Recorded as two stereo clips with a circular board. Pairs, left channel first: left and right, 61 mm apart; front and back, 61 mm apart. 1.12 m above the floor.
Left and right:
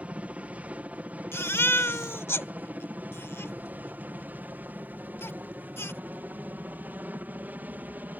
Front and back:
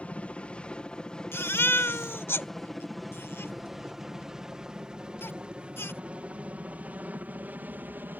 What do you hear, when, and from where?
0.0 s a helicopter: 50° right; by 8.2 s 140° right
1.3 s a baby crying: 45° left